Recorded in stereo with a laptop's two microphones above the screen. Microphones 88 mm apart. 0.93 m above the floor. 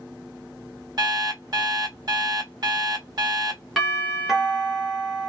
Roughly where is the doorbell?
Centre.